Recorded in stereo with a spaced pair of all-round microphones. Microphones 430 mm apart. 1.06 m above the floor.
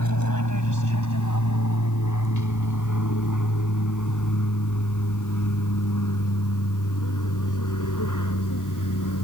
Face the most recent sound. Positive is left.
turn(degrees=45)  # may be behind; listen again after turning